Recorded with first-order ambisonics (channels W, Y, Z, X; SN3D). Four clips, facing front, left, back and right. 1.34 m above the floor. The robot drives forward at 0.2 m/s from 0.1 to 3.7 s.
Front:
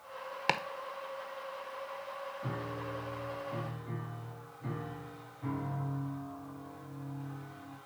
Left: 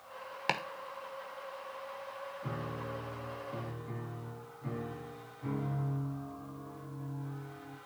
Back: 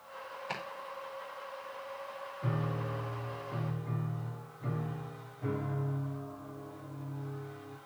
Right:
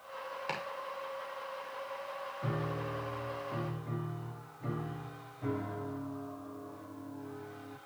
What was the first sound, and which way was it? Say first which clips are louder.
Chopping: left 6 dB, front 9 dB; 25° left.